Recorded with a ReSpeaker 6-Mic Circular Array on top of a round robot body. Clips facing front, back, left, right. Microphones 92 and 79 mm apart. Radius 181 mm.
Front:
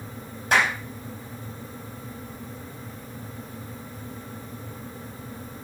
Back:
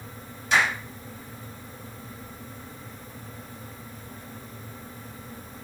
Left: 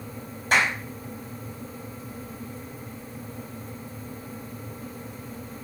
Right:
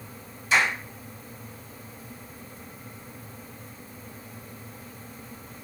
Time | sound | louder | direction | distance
0.5 | a clap | front 1 dB, left 1 dB | 45° left | 4.5 m